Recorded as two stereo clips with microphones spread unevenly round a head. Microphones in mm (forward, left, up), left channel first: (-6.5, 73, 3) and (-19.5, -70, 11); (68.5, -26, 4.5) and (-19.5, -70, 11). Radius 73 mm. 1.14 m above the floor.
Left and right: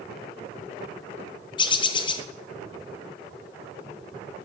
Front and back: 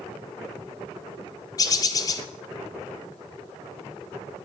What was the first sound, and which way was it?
A bird, 50° left.